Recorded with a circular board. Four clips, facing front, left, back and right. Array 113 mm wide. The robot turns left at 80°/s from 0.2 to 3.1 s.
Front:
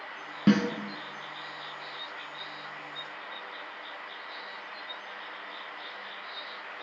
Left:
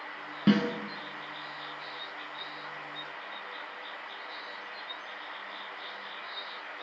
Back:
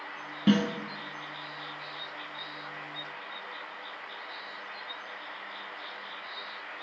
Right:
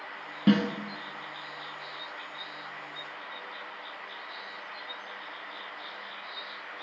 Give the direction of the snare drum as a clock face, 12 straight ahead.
11 o'clock.